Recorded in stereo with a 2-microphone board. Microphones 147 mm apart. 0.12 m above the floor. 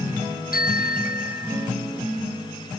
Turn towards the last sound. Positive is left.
turn(degrees=85)